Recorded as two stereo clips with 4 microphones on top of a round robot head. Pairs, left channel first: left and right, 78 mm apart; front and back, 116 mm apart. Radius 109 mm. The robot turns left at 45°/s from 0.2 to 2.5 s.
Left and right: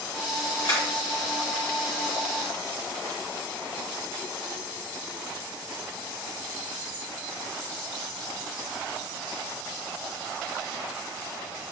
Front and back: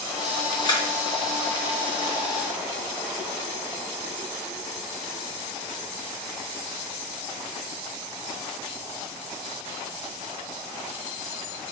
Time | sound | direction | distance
0.6 | a camera shutter | 55° left | 1.7 m